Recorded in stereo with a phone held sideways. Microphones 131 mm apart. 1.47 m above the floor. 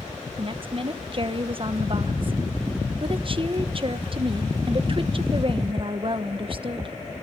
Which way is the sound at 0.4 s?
40° right (ahead or behind).